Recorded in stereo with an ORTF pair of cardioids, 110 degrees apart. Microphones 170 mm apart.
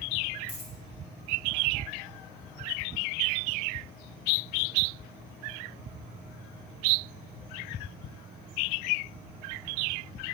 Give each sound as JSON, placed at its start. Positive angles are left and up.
{"t": 0.5, "sound": "a dropped coin", "azimuth_deg": 40, "distance_m": 3.0}